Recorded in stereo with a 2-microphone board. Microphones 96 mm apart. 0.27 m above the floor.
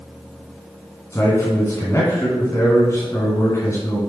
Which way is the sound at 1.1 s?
30° left (ahead or behind).